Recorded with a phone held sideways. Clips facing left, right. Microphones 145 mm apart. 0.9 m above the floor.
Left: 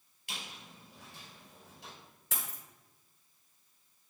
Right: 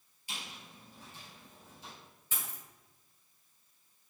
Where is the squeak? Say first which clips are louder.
Even; 60° left (ahead or behind), 3 m.